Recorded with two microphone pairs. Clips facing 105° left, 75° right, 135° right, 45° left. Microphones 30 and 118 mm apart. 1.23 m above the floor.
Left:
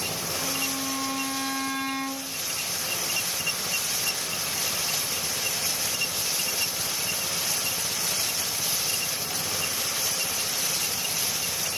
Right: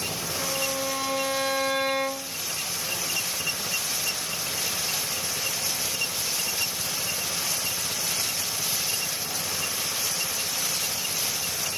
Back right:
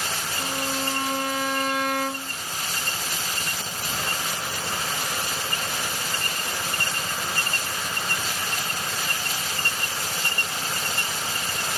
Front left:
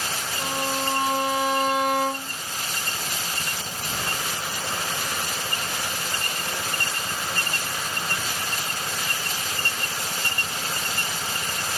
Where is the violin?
20° right, 1.4 m.